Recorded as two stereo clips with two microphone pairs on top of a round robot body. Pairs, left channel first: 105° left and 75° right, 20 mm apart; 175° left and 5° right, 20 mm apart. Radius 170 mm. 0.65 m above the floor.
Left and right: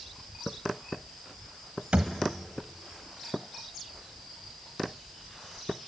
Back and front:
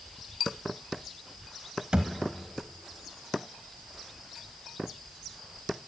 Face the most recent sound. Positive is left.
turn(degrees=-55)